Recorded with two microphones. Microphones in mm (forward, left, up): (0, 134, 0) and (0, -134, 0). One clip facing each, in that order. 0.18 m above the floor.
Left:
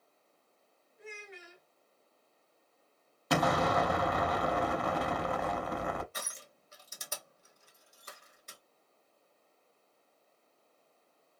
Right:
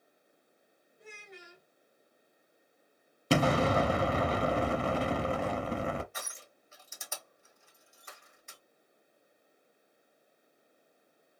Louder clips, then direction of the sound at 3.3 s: Right 3 dB; 30° right (ahead or behind).